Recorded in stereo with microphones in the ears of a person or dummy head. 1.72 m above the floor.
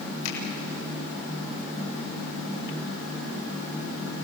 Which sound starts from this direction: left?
A finger snap, at 0.2 s.